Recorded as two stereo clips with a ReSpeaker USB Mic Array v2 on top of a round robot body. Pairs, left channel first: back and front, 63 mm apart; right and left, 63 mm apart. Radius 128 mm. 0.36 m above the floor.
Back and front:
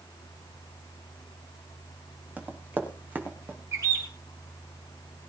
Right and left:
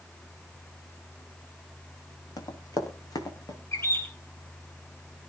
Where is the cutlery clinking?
No cutlery clinking in this recording.